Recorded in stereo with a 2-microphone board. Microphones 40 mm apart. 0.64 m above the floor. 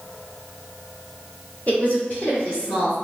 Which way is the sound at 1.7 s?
45° left (ahead or behind).